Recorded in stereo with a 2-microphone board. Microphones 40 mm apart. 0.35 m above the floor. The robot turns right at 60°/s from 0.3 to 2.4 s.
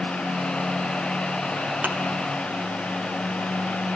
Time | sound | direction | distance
1.8 | a thud | 50° right (ahead or behind) | 3 m